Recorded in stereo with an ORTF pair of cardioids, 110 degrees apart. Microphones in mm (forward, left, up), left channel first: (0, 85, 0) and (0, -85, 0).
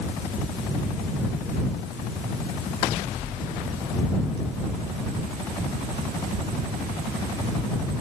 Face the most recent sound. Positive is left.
No sound to turn to.